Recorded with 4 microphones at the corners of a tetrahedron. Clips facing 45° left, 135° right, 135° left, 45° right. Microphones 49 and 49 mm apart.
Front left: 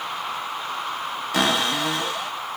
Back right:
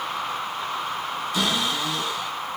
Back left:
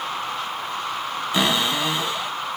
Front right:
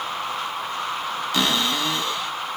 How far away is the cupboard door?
About 0.6 m.